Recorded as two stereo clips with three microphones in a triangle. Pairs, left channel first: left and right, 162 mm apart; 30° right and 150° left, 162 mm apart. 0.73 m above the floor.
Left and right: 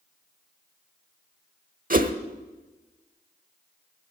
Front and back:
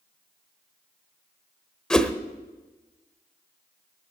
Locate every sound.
1.9 s a whoosh: 115° right, 0.9 m